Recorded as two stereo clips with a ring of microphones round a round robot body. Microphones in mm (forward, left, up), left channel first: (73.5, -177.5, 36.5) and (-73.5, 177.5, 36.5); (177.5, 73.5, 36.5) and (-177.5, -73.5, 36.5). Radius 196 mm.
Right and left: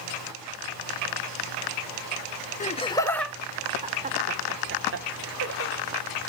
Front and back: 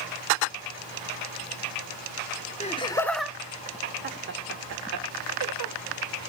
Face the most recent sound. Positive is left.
turn(degrees=160)